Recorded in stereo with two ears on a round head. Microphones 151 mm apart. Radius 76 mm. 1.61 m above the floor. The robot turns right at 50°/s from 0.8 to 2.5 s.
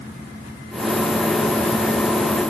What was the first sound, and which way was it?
Only background noise.